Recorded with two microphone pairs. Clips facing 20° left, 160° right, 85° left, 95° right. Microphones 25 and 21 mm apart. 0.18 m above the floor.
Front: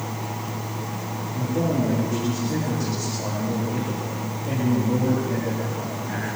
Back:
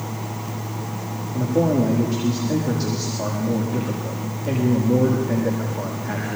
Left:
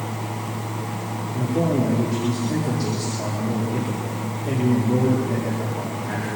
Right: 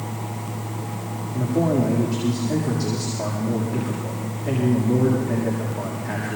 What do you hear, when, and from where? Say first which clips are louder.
1.3 s a man speaking: back 5 dB, right 1 dB; 170° left, 7.5 m